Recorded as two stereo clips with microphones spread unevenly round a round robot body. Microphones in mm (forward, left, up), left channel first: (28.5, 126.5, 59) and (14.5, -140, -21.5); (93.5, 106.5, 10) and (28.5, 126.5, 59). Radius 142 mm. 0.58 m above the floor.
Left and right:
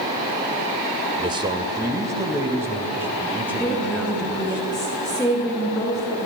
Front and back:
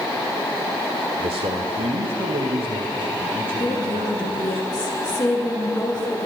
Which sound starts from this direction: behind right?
A man speaking, at 1.2 s.